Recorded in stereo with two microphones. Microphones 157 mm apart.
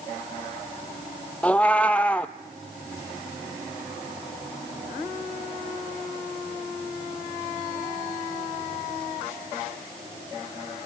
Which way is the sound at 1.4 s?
10° left (ahead or behind).